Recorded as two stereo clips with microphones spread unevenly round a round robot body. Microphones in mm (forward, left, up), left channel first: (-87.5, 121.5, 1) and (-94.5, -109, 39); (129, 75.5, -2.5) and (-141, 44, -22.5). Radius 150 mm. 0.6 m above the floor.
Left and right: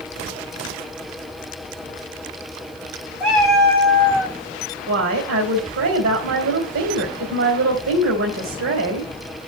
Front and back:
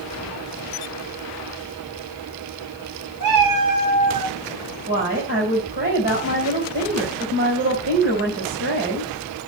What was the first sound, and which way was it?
A cat meowing, straight behind.